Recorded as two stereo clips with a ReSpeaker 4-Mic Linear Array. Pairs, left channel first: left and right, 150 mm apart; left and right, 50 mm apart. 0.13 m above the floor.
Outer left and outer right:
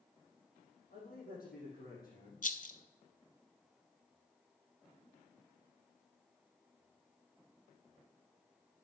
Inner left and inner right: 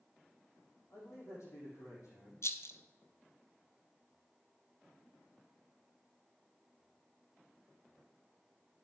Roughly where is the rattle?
Left.